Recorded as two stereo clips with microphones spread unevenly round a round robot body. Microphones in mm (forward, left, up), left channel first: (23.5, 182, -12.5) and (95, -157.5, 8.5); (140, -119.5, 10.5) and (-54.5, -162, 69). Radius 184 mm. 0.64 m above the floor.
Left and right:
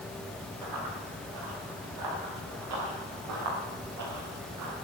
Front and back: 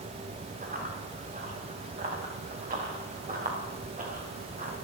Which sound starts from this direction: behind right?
Running footsteps, at 0.6 s.